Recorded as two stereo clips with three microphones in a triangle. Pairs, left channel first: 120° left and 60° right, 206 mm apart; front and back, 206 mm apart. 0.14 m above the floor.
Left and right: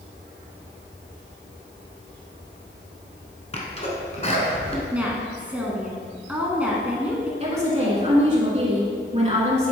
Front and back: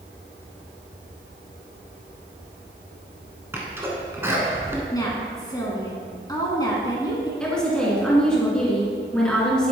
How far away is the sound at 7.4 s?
About 2.0 m.